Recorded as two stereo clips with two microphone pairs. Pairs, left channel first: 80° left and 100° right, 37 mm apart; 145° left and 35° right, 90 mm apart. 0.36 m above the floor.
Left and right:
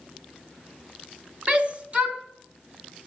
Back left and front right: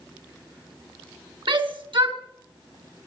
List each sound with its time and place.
1.5 s a shout: 45° right, 4 m